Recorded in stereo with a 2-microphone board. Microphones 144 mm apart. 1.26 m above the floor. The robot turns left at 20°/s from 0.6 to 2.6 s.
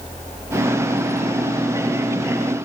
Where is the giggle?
I don't hear a giggle.